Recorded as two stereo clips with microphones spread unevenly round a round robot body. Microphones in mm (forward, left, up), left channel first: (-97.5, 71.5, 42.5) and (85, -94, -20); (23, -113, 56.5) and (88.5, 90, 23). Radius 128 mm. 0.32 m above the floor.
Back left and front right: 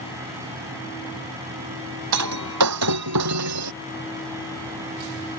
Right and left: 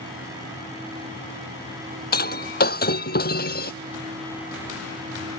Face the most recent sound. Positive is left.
turn(degrees=-65)